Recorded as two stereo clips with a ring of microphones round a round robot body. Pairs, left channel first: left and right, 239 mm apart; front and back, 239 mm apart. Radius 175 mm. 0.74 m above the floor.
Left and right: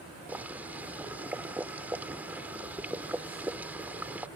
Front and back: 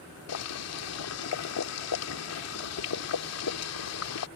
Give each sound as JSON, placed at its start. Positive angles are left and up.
{"t": 0.3, "sound": "boiling", "azimuth_deg": -5}